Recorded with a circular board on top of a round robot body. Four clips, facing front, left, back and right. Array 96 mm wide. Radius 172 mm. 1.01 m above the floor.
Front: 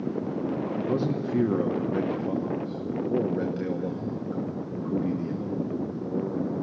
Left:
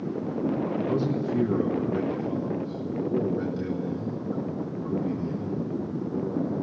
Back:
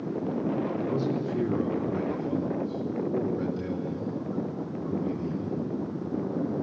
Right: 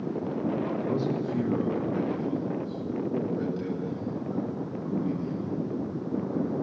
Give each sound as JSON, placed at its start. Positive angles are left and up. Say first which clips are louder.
{"t": 0.8, "sound": "a man speaking", "louder": "left 2 dB, front 1 dB", "azimuth_deg": 0, "distance_m": 1.5}